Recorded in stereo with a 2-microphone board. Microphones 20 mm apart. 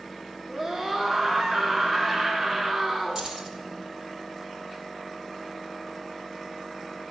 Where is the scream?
30° right (ahead or behind), 1.4 m.